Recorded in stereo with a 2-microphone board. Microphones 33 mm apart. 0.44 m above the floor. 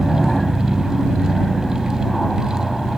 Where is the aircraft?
10° left (ahead or behind).